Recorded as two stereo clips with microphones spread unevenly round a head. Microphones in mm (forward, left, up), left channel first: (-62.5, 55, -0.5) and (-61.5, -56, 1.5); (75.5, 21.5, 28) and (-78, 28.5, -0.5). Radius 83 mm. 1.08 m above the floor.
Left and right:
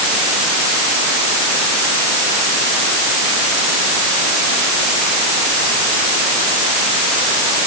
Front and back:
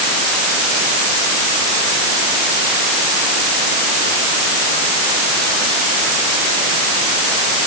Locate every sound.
Only background noise.